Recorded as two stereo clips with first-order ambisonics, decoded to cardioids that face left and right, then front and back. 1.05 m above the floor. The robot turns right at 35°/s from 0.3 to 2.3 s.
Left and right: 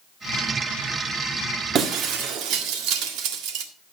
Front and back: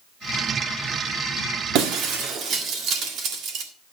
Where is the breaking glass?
145° right, 1.6 m; by 3.7 s 125° right, 1.6 m.